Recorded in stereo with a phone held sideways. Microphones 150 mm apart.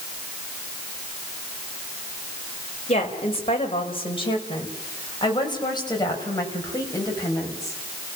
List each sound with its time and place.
2.9 s a woman speaking: 45° left (ahead or behind), 4.5 m; by 7.8 s 20° left (ahead or behind), 6.5 m